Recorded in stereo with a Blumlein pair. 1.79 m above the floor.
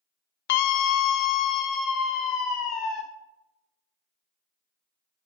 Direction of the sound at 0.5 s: 50° left.